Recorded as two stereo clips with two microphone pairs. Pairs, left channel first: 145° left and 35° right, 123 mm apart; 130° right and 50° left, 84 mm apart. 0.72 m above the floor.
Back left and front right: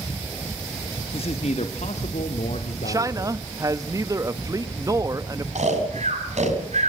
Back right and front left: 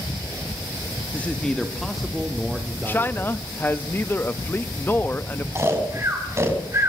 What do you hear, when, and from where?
1.1 s a man speaking: 165° left, 1.1 m; by 3.4 s 130° left, 2.5 m
2.9 s a man speaking: 80° right, 0.7 m
5.5 s snoring: 5° right, 4 m